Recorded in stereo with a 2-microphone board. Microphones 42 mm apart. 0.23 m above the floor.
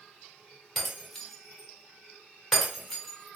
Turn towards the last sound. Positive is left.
turn(degrees=5)  # may be behind; listen again after turning